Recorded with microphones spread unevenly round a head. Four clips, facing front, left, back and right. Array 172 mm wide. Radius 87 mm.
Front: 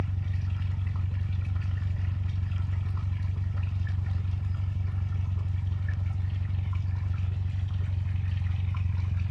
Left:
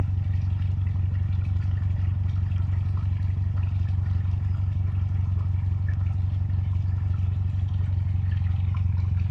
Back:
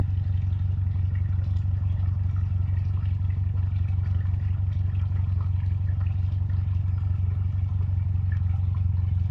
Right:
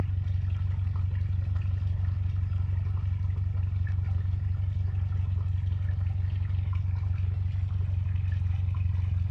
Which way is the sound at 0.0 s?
95° left.